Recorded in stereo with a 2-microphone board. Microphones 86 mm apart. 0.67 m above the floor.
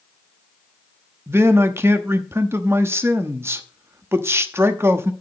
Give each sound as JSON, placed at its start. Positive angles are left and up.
{"t": 1.3, "sound": "a man speaking", "side_deg": -30, "distance_m": 0.8}